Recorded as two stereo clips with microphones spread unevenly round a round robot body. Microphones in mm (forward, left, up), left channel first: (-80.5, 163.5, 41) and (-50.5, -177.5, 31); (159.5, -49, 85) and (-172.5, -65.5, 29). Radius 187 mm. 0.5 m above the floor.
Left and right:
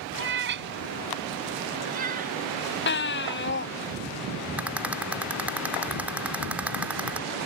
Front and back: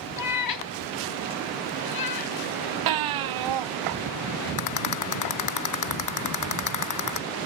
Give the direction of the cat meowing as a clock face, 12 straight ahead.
1 o'clock.